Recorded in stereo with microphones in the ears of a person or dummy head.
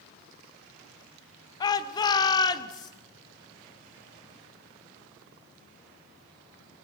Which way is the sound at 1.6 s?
25° left (ahead or behind).